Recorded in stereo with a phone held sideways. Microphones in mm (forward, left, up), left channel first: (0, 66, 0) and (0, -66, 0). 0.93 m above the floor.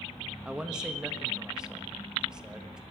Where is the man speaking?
5° right (ahead or behind), 1.4 m.